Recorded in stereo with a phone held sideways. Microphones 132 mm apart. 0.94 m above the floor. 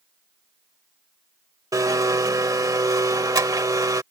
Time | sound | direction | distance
1.7 | a blender | 25° right (ahead or behind) | ?